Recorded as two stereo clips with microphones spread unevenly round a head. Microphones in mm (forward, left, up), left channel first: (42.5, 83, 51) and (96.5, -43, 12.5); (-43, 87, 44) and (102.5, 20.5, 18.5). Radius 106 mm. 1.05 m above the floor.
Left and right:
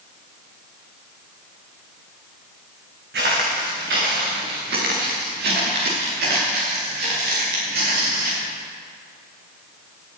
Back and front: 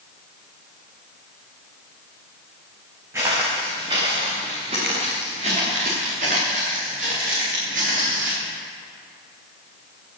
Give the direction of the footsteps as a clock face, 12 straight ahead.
4 o'clock.